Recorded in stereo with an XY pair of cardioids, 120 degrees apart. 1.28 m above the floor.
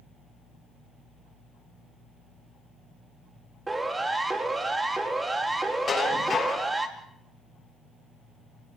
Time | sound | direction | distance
3.7 | a siren | 15° right | 5 m
5.9 | dishes clattering | 35° left | 6.5 m